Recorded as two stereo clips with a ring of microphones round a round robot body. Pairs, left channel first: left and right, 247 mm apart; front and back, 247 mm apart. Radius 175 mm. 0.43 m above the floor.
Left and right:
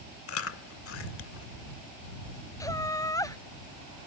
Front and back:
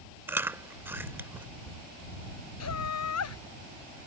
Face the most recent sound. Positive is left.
turn(degrees=15)